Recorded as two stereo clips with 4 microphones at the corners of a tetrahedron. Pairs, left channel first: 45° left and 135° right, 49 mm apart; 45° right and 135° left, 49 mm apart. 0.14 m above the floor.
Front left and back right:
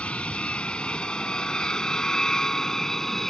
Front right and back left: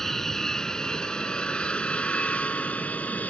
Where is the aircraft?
30° left; by 3.3 s 30° right.